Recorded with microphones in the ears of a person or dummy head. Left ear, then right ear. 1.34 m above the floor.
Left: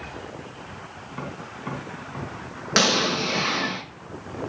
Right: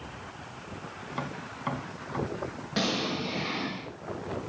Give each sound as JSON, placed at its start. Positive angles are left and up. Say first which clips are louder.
{"t": 1.1, "sound": "tapping", "louder": "left 1 dB", "side_deg": -40, "distance_m": 3.0}
{"t": 2.8, "sound": "an explosion", "louder": "left 10 dB", "side_deg": 60, "distance_m": 3.5}